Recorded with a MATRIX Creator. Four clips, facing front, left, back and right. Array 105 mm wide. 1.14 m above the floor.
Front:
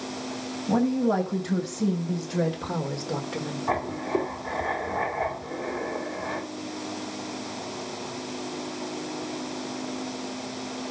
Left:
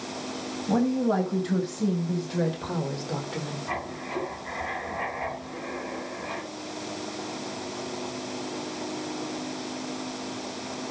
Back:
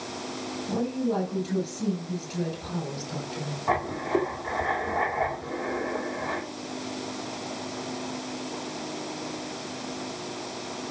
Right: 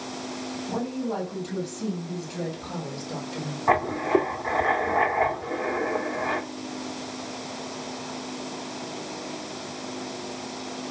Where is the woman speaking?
40° left, 6.5 m; by 3.6 s 25° left, 3.5 m.